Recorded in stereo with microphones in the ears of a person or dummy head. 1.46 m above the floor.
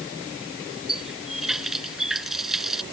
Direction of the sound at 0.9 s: Centre (ahead or behind).